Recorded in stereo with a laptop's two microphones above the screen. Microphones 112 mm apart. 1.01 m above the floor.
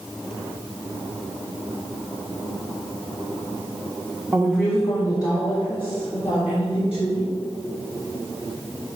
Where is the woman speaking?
10° right (ahead or behind), 0.7 m; by 7.3 s 60° left (ahead or behind), 3 m.